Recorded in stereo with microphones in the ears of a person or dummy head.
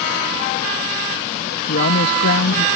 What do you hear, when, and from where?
1.7 s a woman speaking: 60° left (ahead or behind)